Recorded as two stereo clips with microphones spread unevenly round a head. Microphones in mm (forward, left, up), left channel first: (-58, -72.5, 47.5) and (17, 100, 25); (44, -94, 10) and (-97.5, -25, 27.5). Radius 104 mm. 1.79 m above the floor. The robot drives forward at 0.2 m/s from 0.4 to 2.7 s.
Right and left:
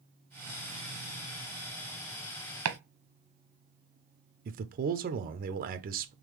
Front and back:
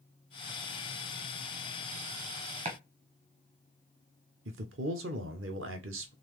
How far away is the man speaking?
About 0.6 m.